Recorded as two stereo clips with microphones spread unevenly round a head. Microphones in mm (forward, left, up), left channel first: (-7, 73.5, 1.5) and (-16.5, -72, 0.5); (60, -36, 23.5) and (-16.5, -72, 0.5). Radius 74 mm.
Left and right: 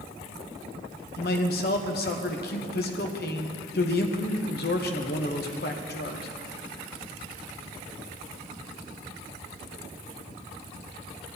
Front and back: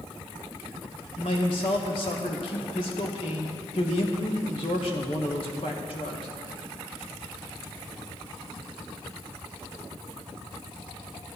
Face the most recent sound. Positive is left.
turn(degrees=60)